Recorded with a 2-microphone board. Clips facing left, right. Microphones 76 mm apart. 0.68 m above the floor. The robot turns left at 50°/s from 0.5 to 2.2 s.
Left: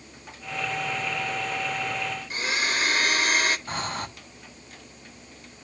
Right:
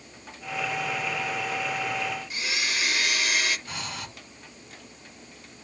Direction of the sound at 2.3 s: 40° left (ahead or behind).